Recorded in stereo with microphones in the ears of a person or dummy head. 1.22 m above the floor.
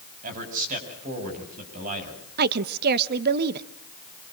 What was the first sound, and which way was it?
A man speaking, 50° right (ahead or behind).